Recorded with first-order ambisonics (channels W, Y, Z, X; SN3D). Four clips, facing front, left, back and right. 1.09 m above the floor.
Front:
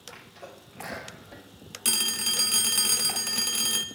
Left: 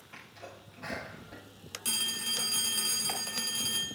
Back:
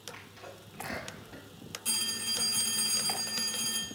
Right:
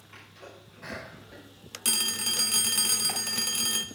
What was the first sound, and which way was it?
A sneeze, 5° right.